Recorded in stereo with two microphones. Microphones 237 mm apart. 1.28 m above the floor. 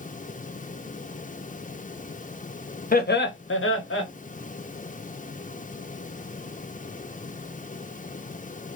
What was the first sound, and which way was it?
Laughter, 40° left (ahead or behind).